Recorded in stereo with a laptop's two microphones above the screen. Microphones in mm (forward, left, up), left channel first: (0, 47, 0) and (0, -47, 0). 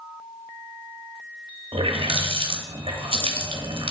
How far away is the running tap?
About 0.9 m.